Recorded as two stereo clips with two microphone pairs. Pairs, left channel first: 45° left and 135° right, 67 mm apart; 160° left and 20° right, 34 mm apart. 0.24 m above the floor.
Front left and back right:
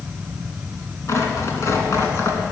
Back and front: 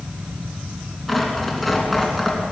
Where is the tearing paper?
80° left, 2.5 m.